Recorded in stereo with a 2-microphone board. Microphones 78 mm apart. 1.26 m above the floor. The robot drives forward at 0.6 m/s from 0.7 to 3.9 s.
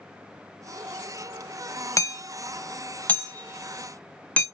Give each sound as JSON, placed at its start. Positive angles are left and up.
{"t": 2.0, "sound": "hammering", "side_deg": 45, "distance_m": 0.6}